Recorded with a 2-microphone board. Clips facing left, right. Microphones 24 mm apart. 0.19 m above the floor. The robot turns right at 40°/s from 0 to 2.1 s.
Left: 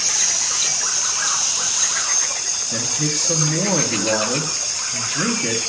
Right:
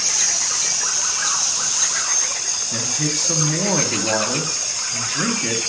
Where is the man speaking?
15° right (ahead or behind), 1.0 m.